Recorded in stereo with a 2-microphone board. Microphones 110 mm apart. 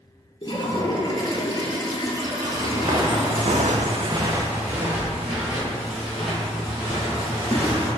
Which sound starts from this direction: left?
A toilet flushing, at 0.4 s.